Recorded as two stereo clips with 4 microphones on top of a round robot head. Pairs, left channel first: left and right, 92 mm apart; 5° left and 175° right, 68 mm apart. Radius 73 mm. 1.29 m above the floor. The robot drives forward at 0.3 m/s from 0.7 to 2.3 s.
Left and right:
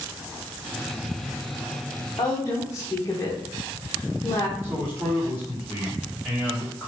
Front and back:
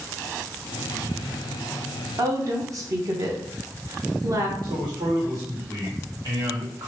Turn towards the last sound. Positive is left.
turn(degrees=-160)